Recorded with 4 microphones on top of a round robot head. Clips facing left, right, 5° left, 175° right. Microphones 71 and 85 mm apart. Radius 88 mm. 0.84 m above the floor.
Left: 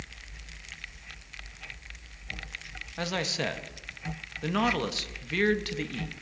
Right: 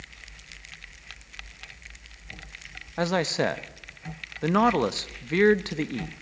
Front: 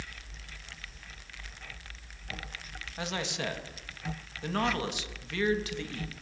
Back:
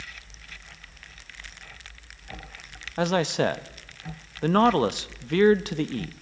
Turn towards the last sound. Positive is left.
turn(degrees=-145)